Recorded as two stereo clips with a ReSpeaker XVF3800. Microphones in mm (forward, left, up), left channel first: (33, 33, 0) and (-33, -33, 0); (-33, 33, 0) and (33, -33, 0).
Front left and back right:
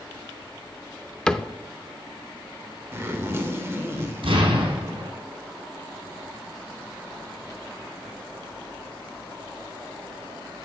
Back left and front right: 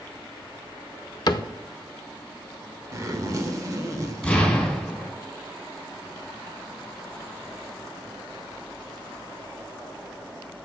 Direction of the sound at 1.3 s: 120° left.